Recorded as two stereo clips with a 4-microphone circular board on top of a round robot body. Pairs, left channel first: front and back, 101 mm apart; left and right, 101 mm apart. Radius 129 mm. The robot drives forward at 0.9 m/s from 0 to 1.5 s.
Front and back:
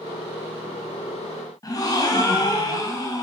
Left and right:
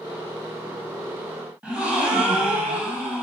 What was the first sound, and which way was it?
A gasp, 20° right.